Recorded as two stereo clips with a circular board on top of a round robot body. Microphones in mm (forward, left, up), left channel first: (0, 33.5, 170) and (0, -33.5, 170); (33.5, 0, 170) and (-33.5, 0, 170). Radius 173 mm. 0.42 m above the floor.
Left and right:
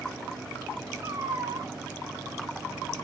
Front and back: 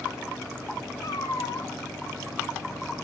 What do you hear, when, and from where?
1.0 s a cat meowing: 45° right, 1.6 m